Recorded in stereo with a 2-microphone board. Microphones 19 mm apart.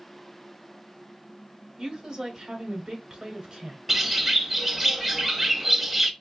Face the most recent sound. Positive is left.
turn(degrees=-5)  # may be behind; listen again after turning